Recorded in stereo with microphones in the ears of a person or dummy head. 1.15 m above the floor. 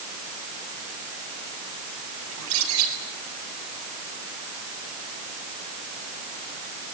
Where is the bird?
80° right, 7.5 m.